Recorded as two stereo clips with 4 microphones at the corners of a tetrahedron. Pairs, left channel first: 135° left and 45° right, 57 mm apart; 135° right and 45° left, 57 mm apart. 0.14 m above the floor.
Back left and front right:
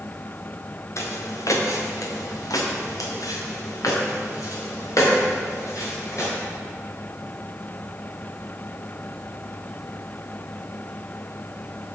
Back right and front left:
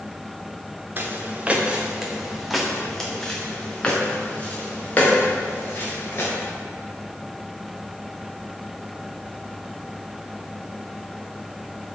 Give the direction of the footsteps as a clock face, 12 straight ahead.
9 o'clock.